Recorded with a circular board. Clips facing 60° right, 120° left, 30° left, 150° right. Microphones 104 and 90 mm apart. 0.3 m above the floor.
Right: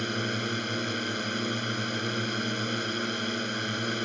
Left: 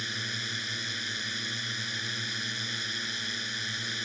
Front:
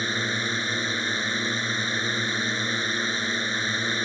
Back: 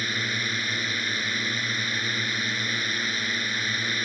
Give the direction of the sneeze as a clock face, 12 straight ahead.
I don't hear a sneeze.